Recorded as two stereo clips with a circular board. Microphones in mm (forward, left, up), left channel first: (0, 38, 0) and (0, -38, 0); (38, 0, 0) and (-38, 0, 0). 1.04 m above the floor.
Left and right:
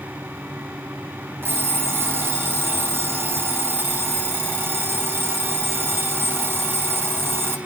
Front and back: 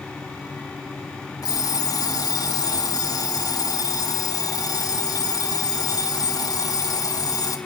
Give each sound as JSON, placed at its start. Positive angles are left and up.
{"t": 1.4, "sound": "an alarm clock", "azimuth_deg": -30, "distance_m": 2.5}